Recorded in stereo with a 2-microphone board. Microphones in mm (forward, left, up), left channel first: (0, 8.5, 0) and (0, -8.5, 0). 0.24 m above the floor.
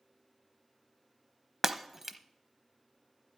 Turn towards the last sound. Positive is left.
turn(degrees=-20)  # may be behind; listen again after turning